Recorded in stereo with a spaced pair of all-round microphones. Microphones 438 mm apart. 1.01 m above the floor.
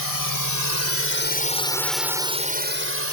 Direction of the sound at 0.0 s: 50° left (ahead or behind).